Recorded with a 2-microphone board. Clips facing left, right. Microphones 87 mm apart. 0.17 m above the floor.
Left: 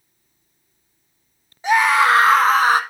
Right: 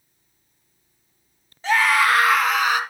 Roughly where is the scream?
Centre.